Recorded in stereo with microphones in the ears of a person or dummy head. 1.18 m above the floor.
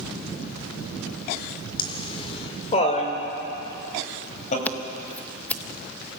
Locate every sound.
1.8 s laughter: 25° left (ahead or behind), 3.5 m; by 4.5 s 40° left (ahead or behind), 7 m
4.7 s scissors: 5° left (ahead or behind), 0.7 m